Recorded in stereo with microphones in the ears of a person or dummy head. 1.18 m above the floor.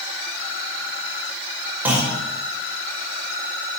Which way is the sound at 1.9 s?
10° right (ahead or behind).